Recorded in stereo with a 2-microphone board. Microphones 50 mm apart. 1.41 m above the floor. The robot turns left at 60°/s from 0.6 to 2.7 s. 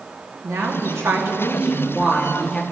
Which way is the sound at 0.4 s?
80° right.